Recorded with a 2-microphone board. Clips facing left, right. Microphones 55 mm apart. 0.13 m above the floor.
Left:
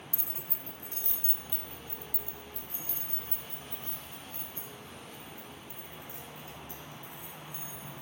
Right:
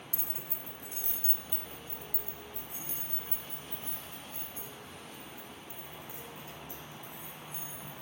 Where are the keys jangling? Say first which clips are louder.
Even; 15° right (ahead or behind), 1.3 m; by 8.0 s 25° right (ahead or behind), 6 m.